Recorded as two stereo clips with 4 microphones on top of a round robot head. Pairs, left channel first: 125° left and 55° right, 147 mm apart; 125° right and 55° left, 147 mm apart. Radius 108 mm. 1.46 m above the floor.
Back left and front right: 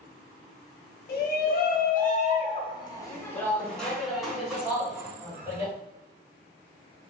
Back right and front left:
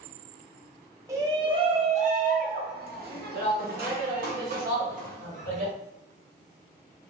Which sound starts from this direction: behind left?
A shout, at 1.1 s.